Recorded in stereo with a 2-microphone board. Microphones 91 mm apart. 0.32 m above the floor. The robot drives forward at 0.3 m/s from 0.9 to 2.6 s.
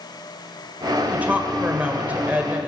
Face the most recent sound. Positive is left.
turn(degrees=-15)  # may be behind; listen again after turning